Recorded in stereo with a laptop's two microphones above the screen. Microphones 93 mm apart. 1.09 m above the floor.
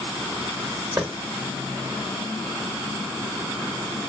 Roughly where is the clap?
Right.